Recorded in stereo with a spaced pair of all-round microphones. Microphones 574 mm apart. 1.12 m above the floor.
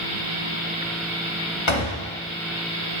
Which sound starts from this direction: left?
A door slam, at 1.7 s.